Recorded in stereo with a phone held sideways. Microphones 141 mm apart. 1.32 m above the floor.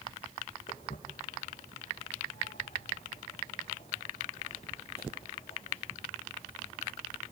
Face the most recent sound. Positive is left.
turn(degrees=30)  # may be behind; listen again after turning